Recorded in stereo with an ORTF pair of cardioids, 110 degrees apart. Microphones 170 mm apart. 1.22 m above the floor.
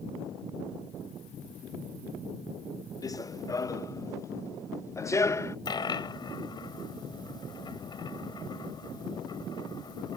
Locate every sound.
3.0 s running footsteps: 20° left; by 5.5 s 15° left
5.7 s a dropped coin: 30° left